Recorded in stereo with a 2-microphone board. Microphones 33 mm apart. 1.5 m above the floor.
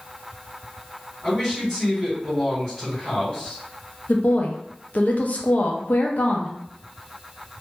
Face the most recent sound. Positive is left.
turn(degrees=55)  # may be behind; listen again after turning